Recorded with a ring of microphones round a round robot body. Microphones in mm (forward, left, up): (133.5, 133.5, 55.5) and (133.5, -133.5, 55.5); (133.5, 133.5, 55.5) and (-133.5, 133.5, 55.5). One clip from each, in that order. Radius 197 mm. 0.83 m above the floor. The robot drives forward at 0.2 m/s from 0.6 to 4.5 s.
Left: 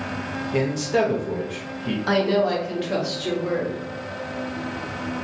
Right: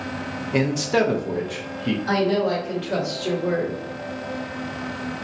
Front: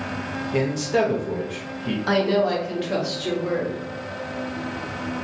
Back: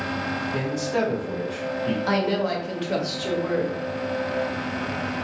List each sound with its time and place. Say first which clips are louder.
0.5 s a man speaking: right 1 dB, front 6 dB; 45° right, 0.7 m; by 2.0 s 90° right, 0.6 m
2.1 s a woman speaking: left 1 dB, front 5 dB; 110° left, 1.3 m; by 3.8 s 125° left, 1.5 m